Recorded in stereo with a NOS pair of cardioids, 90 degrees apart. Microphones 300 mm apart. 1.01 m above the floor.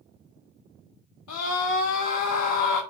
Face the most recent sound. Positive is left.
turn(degrees=65)